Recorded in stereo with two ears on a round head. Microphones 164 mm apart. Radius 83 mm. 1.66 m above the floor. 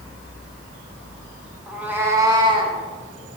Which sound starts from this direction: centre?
A cat meowing, at 1.7 s.